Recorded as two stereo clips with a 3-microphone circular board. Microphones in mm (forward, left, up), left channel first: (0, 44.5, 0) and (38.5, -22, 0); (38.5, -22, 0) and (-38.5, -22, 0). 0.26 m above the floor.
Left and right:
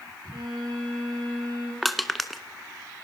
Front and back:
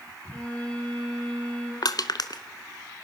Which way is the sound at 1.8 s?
30° left.